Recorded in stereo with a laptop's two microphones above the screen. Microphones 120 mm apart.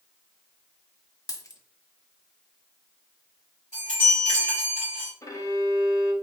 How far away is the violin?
About 0.6 m.